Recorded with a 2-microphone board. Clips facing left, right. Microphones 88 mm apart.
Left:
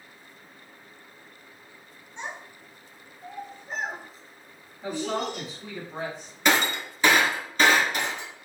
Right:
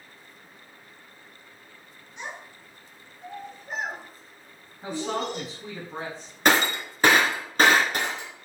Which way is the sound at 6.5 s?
50° right (ahead or behind).